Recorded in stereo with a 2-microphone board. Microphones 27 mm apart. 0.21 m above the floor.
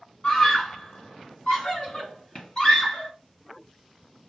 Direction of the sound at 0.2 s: 40° left (ahead or behind).